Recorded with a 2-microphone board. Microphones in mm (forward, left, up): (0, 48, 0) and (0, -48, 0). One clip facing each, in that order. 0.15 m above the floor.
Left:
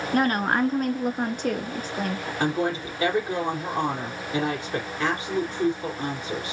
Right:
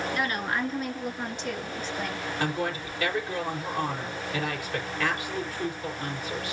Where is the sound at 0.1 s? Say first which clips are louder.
Left 11 dB; 45° left (ahead or behind), 1.9 m.